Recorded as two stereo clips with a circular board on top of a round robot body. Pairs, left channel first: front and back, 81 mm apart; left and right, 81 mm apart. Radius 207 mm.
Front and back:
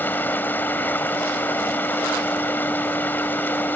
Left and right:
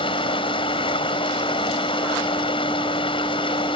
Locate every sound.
0.0 s running water: 70° left